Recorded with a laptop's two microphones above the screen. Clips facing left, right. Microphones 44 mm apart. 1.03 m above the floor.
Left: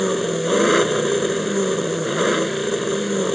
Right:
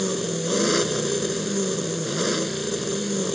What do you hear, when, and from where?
0.0 s an engine running: 30° left (ahead or behind)